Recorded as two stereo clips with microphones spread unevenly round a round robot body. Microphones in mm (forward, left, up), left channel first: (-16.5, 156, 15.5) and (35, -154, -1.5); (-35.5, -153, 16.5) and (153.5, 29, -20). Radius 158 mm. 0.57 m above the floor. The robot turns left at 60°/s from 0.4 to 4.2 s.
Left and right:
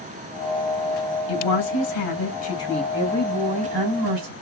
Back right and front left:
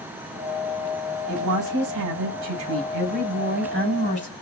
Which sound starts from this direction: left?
A woman speaking, at 1.3 s.